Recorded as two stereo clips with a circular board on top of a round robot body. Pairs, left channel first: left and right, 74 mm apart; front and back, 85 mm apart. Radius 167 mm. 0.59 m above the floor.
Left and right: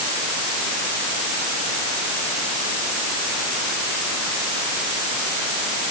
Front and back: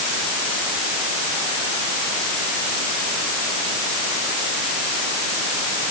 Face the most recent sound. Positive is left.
No sound to turn to.